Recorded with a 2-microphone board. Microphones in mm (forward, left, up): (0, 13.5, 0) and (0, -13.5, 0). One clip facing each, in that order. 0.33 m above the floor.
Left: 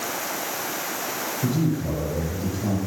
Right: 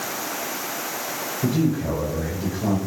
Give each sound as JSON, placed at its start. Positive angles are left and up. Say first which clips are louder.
{"t": 1.4, "sound": "a man speaking", "louder": "right 3 dB", "side_deg": -35, "distance_m": 8.5}